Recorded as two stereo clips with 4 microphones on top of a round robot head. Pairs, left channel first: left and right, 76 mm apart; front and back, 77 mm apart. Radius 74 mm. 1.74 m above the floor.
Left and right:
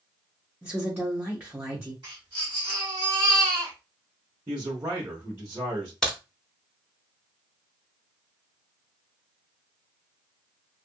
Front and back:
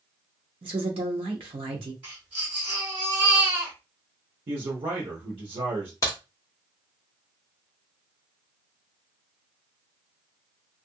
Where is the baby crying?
135° right, 1.6 m.